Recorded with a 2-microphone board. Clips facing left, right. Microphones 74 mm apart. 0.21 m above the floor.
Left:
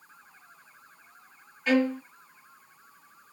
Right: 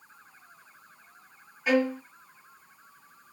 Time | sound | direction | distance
1.7 | a violin | 10° right (ahead or behind) | 1.0 m